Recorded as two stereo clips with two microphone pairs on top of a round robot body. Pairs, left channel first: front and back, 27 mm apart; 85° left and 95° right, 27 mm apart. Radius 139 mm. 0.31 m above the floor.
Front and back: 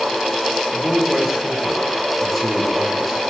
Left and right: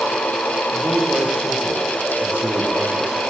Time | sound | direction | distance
0.7 | a man speaking | 95° right | 8.5 m